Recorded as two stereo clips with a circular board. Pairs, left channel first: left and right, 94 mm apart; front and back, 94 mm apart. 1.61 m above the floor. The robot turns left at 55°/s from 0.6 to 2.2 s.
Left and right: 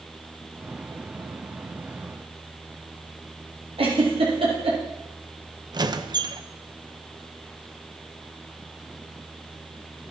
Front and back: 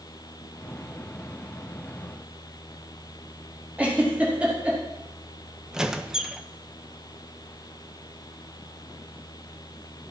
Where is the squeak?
100° right, 0.8 m.